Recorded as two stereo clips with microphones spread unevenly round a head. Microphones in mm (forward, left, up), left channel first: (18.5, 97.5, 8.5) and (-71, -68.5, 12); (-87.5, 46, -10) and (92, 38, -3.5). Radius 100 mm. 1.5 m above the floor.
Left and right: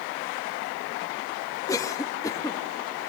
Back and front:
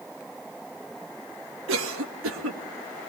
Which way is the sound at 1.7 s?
15° right.